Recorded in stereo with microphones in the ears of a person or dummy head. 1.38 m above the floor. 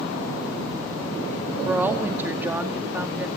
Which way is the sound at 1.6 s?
5° right (ahead or behind).